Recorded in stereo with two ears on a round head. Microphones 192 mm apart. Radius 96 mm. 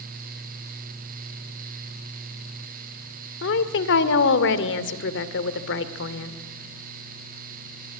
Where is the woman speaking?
60° left (ahead or behind), 2 m.